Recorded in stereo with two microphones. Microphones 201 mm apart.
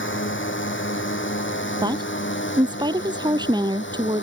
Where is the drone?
75° left (ahead or behind); by 4.2 s 70° left (ahead or behind).